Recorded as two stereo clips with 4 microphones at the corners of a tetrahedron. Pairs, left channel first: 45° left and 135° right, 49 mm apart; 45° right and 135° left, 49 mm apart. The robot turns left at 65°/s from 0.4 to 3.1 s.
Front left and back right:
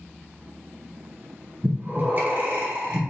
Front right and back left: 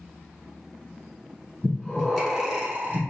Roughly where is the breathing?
Right.